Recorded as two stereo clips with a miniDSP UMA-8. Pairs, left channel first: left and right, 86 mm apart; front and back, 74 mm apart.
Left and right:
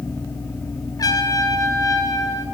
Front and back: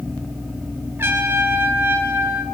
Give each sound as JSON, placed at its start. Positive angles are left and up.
{"t": 1.0, "sound": "a trumpet", "azimuth_deg": 125, "distance_m": 1.6}